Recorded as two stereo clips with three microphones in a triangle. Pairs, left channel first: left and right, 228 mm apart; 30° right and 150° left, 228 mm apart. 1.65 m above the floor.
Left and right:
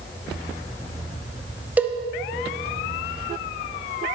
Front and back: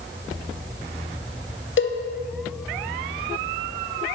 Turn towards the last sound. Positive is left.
turn(degrees=-5)